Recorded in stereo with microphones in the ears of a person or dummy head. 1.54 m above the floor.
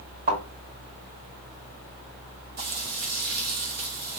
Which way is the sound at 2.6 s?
50° right (ahead or behind).